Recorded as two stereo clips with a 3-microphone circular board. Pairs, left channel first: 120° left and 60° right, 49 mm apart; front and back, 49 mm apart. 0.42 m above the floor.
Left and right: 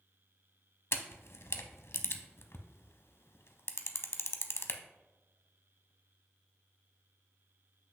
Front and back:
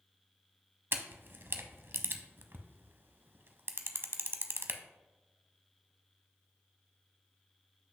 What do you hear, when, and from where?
0.9 s a camera shutter: 145° left, 0.6 m